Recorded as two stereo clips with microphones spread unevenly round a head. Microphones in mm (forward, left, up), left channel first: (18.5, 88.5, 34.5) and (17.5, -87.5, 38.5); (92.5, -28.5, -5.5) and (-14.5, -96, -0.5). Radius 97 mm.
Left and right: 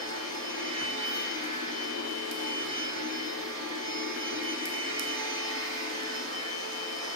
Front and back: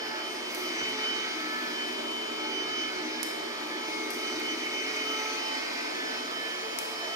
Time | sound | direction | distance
0.0 | a machine running | 85° right | 3 m